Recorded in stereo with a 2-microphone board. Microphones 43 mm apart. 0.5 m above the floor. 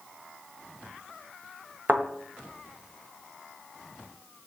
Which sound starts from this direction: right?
A thud, at 1.9 s.